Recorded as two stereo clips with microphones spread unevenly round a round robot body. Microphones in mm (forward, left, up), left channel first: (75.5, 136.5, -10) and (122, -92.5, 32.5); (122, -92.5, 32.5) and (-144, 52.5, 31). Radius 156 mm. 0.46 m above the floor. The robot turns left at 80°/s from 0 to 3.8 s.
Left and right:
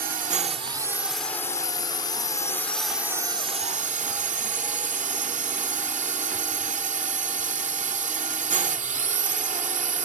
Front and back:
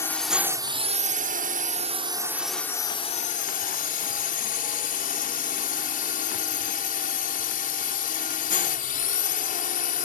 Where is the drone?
100° right; by 10.1 s 40° right.